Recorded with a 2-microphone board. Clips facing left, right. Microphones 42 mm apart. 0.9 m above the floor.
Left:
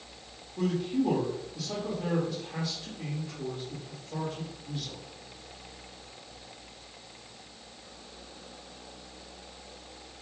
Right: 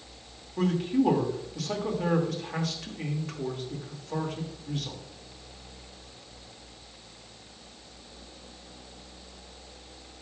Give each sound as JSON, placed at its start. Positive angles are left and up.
{"t": 0.6, "sound": "a man speaking", "side_deg": -75, "distance_m": 2.5}